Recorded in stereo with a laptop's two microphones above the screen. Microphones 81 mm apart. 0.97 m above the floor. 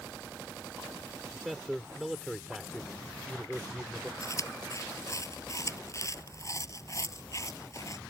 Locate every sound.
1.3 s a man speaking: centre (ahead or behind)
4.2 s chewing: 40° left (ahead or behind)